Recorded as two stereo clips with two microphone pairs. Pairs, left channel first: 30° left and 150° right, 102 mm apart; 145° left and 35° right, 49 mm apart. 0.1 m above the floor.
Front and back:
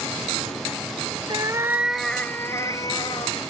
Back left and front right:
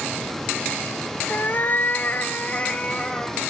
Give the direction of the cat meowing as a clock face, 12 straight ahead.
6 o'clock.